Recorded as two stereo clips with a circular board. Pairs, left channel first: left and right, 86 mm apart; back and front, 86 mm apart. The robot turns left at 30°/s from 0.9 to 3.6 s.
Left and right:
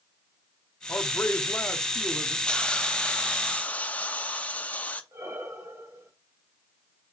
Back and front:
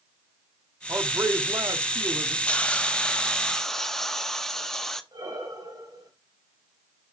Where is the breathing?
30° right, 2.5 m.